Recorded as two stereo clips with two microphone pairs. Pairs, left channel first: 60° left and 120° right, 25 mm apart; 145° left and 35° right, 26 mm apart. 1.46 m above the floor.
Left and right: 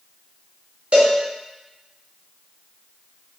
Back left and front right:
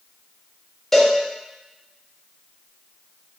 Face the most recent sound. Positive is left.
turn(degrees=-140)